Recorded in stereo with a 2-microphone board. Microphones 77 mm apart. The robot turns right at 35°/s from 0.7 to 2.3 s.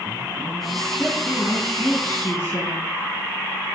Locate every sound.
1.0 s a woman speaking: 10° right, 2 m; by 2.9 s 35° left, 2 m